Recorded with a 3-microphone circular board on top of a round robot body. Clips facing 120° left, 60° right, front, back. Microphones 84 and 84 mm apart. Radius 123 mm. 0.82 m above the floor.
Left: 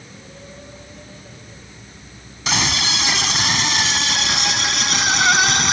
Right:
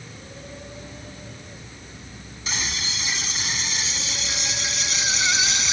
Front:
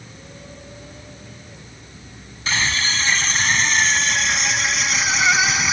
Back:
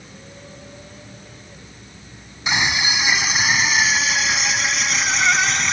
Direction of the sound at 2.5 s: 105° left.